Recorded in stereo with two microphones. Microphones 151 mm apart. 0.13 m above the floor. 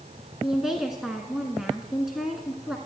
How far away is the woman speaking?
About 1.1 m.